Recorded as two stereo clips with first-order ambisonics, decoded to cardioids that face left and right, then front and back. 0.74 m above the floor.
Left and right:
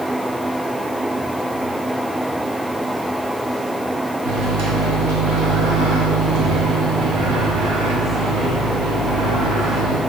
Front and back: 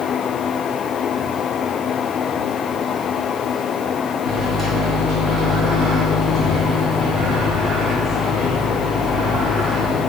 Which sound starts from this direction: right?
A microwave, at 4.2 s.